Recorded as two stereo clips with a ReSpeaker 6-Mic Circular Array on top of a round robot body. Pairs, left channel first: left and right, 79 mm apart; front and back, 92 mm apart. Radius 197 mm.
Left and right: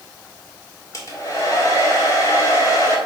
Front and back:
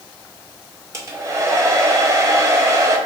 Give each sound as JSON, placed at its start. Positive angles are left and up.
{"t": 0.9, "sound": "a hair dryer", "azimuth_deg": 130, "distance_m": 1.9}